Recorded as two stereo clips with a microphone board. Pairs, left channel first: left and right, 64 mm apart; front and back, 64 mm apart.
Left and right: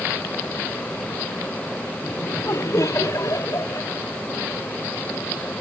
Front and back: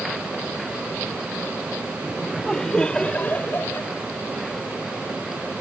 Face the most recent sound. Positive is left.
turn(degrees=60)